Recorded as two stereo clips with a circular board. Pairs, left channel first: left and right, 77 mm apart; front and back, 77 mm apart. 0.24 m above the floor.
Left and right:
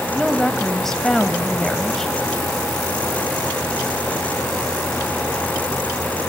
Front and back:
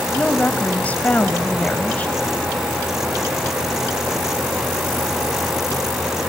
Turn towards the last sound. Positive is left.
turn(degrees=15)